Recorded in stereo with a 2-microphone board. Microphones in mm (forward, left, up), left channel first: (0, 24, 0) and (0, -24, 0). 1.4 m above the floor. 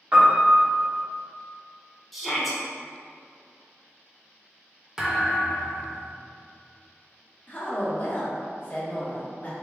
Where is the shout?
Centre (ahead or behind), 1.0 m.